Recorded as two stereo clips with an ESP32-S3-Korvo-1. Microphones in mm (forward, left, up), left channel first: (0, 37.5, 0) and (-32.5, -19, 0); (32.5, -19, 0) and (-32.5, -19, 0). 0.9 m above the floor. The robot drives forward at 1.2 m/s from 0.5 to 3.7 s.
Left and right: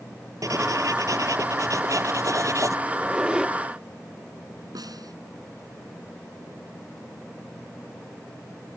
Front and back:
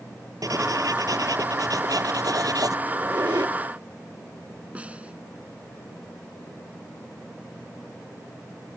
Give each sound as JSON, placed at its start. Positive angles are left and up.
{"t": 0.4, "sound": "writing", "azimuth_deg": -150}
{"t": 2.9, "sound": "a squeak", "azimuth_deg": 150}
{"t": 4.8, "sound": "a snare drum", "azimuth_deg": -110}